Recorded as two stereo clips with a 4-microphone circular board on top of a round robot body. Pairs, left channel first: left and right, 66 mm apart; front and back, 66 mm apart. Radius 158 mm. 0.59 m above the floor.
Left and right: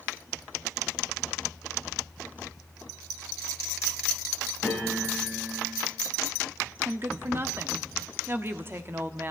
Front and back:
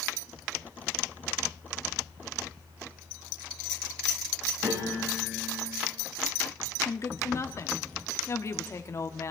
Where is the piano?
175° right, 7 m.